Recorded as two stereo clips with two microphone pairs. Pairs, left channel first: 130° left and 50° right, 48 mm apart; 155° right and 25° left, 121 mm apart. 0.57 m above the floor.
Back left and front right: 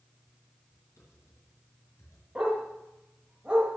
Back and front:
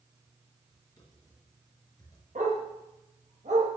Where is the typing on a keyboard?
145° left, 4.5 m.